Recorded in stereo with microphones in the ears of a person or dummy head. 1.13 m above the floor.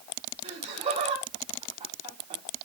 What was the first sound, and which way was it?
Laughter, 25° right (ahead or behind).